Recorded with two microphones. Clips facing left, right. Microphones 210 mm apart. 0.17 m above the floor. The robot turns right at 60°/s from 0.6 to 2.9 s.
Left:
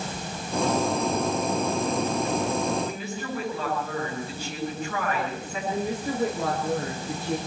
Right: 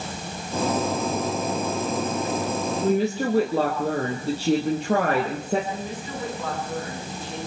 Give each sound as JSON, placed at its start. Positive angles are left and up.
{"t": 2.8, "sound": "a woman speaking", "side_deg": -75, "distance_m": 4.5}
{"t": 5.7, "sound": "a woman speaking", "side_deg": 60, "distance_m": 8.0}